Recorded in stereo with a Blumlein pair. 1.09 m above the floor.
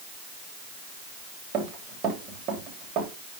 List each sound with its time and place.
1.5 s running footsteps: 35° right, 9 m